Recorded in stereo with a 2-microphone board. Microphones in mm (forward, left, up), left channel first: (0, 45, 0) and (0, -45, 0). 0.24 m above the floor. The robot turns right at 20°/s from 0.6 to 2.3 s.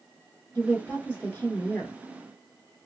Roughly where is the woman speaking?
Left.